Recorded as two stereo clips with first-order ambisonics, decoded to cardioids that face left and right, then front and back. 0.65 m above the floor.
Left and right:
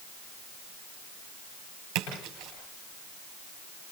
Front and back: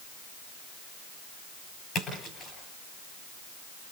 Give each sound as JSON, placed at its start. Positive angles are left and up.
{"t": 1.9, "sound": "a splash", "azimuth_deg": -65, "distance_m": 9.0}